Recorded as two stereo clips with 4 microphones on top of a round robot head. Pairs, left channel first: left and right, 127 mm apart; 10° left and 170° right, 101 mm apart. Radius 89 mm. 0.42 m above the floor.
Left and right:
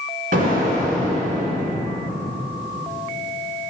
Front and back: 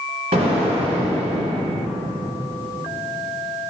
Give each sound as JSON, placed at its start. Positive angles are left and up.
{"t": 0.3, "sound": "an explosion", "azimuth_deg": -125, "distance_m": 1.8}